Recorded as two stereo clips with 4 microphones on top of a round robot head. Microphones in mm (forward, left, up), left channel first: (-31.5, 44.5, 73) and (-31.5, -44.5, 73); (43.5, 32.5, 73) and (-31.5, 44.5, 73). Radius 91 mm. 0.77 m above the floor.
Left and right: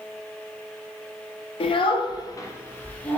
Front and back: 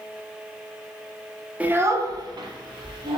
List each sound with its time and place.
1.6 s a child speaking: 100° left, 0.5 m; by 3.2 s 165° left, 0.9 m